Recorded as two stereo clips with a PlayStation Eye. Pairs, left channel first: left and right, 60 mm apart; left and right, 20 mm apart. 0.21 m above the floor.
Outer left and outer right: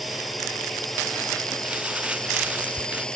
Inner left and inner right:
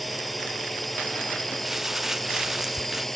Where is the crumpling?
20° right (ahead or behind).